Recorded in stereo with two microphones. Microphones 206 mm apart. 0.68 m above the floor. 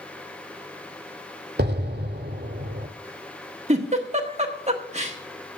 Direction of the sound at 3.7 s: 35° right (ahead or behind).